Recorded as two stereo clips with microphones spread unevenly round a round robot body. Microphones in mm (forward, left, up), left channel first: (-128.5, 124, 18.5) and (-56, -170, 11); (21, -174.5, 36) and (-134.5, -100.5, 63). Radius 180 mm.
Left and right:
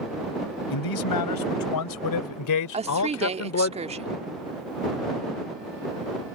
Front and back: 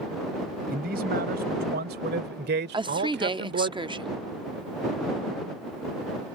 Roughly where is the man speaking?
Left.